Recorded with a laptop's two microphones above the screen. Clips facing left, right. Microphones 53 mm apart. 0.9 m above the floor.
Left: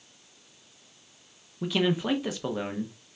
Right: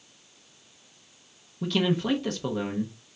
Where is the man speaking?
10° left (ahead or behind), 0.6 m.